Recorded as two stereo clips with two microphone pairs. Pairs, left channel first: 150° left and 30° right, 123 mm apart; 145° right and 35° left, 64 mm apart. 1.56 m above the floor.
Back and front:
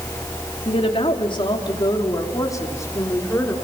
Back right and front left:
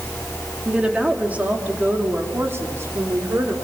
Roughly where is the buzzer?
I don't hear a buzzer.